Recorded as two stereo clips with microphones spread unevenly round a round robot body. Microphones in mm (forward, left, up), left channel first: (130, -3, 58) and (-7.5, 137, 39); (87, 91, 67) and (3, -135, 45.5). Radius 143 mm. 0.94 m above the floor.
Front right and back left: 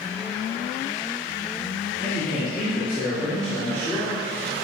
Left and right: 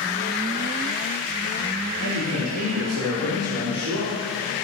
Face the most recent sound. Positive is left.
turn(degrees=-120)